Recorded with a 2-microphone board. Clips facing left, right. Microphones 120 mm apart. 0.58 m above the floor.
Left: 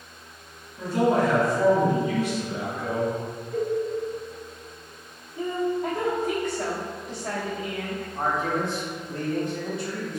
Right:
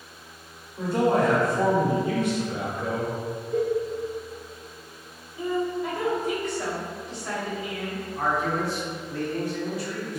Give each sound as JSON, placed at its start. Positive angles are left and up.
{"t": 0.8, "sound": "a man speaking", "side_deg": -50, "distance_m": 1.5}
{"t": 3.5, "sound": "a cowbell", "side_deg": -25, "distance_m": 1.2}
{"t": 5.4, "sound": "a woman speaking", "side_deg": 40, "distance_m": 1.1}
{"t": 8.2, "sound": "a man speaking", "side_deg": 25, "distance_m": 1.3}